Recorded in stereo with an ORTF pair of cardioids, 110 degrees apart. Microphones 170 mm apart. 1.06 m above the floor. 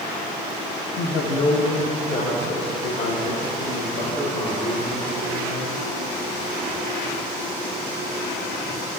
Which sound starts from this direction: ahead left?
A woman speaking, at 1.0 s.